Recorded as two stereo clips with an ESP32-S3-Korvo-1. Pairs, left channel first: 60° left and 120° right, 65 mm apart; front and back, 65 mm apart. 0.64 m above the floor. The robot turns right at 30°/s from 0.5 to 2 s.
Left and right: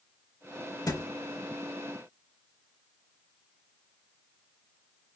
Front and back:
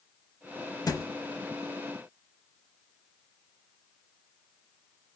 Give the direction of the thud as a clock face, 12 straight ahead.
11 o'clock.